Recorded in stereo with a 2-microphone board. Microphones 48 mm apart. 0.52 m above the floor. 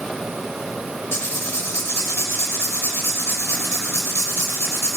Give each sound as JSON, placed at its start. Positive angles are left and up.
{"t": 1.1, "sound": "writing", "side_deg": 70, "distance_m": 1.2}